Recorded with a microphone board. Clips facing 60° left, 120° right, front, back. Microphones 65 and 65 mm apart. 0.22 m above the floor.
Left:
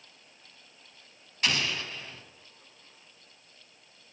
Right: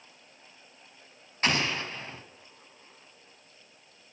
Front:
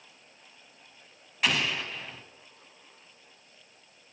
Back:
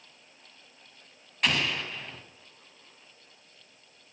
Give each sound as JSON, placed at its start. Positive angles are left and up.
{"t": 1.4, "sound": "an explosion", "azimuth_deg": -85, "distance_m": 1.3}